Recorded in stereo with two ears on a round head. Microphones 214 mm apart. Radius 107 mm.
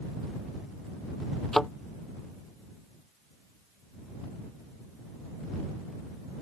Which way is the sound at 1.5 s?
Centre (ahead or behind).